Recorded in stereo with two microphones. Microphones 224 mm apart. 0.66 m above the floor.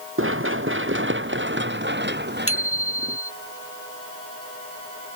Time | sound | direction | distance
0.2 | running footsteps | 65° right (ahead or behind) | ?
2.5 | a bicycle bell | 75° left (ahead or behind) | ?